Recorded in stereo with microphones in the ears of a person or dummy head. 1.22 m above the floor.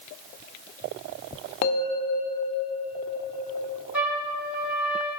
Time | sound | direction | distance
1.6 | a bell | 45° left (ahead or behind) | 0.8 m
3.9 | a trumpet | 10° right (ahead or behind) | 3 m